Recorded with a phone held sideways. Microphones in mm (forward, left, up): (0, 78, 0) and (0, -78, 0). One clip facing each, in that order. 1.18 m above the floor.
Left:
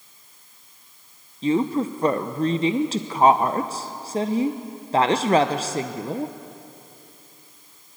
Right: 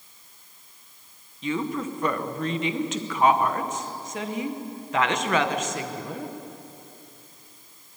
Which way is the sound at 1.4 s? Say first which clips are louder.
Left 7 dB; 35° left (ahead or behind).